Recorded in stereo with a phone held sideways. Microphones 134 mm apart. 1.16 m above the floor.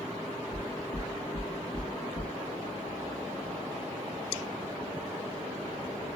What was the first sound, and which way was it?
Knocking, 70° right (ahead or behind).